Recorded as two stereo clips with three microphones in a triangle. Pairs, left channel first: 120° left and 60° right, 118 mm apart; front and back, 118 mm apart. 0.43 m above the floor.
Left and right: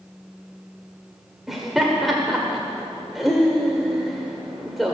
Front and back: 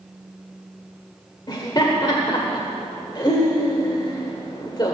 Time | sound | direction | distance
1.5 | laughter | 25° left | 1.4 m